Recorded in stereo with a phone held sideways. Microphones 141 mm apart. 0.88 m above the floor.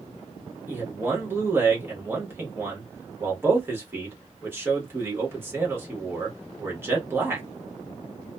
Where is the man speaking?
15° right (ahead or behind), 1.3 m.